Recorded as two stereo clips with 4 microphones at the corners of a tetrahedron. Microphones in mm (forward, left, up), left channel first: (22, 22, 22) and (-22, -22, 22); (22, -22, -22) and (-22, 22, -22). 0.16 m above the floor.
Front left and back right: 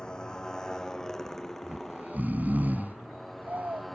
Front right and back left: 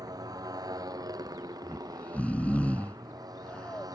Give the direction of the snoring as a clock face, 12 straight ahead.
3 o'clock.